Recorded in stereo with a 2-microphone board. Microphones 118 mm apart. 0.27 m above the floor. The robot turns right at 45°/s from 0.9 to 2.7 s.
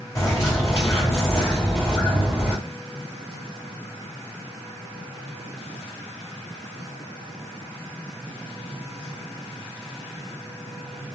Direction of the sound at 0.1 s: 30° left (ahead or behind).